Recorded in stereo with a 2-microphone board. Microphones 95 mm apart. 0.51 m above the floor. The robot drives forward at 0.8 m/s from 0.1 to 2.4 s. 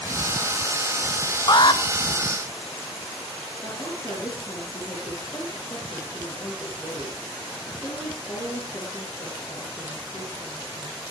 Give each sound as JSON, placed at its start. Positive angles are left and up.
{"t": 1.5, "sound": "an alarm", "side_deg": 40, "distance_m": 1.4}
{"t": 3.6, "sound": "a woman speaking", "side_deg": 30, "distance_m": 8.0}